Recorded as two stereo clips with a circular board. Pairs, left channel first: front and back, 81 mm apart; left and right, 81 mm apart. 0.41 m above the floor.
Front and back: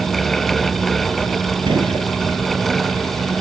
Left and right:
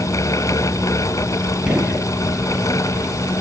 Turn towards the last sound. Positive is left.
turn(degrees=-170)